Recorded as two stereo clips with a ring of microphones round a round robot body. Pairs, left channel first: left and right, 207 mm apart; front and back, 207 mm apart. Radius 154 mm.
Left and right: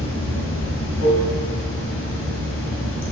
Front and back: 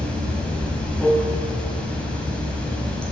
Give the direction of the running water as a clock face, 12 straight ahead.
9 o'clock.